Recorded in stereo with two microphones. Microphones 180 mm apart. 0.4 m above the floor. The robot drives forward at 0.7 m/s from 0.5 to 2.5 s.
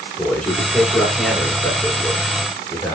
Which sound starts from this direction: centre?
A man speaking, at 0.2 s.